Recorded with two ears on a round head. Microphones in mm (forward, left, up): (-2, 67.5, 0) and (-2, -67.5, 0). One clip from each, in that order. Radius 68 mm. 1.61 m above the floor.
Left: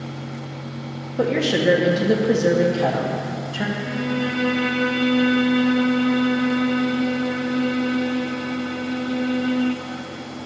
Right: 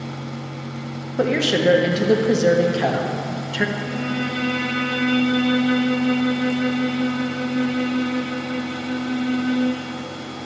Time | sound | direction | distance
1.2 | a woman speaking | 40° right (ahead or behind) | 1.2 m
3.8 | a violin | 15° right (ahead or behind) | 3.5 m